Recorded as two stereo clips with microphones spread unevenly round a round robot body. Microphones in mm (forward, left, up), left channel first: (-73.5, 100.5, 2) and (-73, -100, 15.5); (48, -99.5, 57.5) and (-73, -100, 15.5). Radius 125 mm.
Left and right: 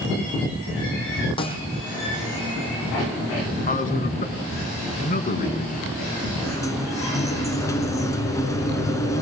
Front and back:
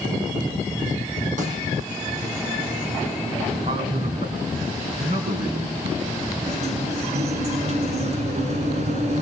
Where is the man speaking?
135° left, 4 m.